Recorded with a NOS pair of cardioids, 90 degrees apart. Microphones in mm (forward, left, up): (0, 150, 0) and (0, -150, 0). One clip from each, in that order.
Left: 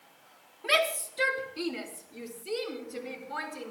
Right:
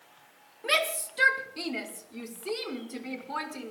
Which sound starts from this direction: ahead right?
A shout, at 0.6 s.